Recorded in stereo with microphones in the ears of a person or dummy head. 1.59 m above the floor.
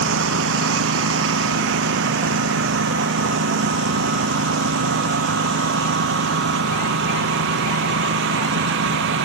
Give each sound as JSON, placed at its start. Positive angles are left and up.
{"t": 0.0, "sound": "a lawn mower", "side_deg": -70}